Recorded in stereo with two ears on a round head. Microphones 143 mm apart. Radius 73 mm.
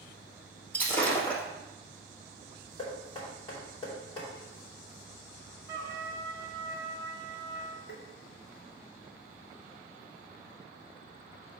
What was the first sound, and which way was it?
Breaking glass, 10° left (ahead or behind).